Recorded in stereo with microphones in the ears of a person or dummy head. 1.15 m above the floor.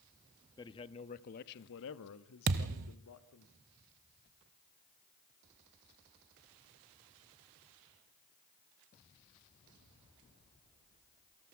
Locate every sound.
0.6 s a man speaking: 20° left (ahead or behind), 1.4 m; by 3.5 s 70° left (ahead or behind), 2.5 m
2.5 s a thud: 45° right (ahead or behind), 1.2 m